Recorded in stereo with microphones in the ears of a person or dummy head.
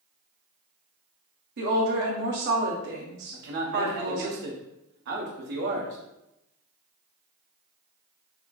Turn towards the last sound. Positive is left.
turn(degrees=-60)  # may be behind; listen again after turning